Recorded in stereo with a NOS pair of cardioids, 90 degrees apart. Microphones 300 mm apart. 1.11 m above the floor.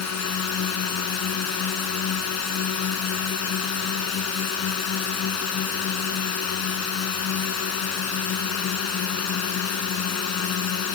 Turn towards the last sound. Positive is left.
turn(degrees=65)